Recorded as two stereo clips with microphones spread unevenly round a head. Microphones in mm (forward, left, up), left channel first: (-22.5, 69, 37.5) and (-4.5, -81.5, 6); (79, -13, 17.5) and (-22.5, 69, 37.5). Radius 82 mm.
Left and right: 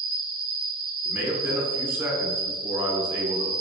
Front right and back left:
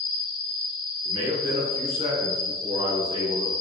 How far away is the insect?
About 1.6 m.